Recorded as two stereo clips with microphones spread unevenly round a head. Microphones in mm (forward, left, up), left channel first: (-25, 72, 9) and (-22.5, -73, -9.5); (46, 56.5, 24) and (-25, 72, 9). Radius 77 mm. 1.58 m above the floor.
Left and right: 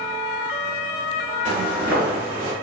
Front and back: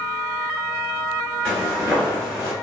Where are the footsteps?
5° left, 1.6 m; by 2.5 s 95° right, 1.5 m.